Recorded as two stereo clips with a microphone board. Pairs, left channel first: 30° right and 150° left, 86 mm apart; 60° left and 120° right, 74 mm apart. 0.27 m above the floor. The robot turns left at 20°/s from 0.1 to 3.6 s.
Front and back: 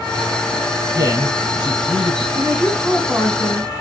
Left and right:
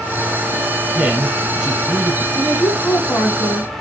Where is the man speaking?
175° left, 2 m; by 2.2 s 150° left, 2 m.